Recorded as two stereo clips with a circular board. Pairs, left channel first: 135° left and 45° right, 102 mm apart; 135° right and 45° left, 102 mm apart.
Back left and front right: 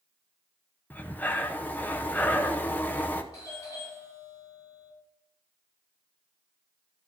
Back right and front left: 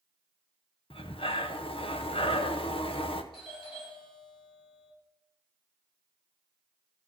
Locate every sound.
0.9 s breathing: 155° right, 0.7 m
3.3 s a doorbell: 170° right, 5.5 m